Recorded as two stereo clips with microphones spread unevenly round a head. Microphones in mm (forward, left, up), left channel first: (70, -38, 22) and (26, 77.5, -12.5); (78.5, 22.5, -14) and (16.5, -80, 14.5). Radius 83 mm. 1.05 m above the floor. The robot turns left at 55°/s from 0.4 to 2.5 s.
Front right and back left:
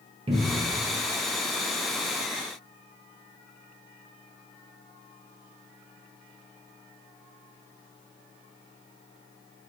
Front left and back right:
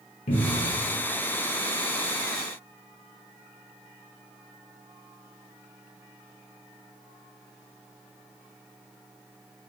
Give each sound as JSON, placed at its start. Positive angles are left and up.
{"t": 0.3, "sound": "a cupboard door", "azimuth_deg": 80, "distance_m": 0.5}